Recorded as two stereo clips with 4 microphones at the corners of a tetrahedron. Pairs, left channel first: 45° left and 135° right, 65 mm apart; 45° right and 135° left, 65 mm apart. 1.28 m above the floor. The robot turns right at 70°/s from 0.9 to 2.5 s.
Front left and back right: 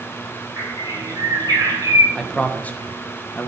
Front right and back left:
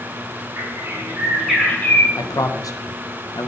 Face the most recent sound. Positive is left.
turn(degrees=-20)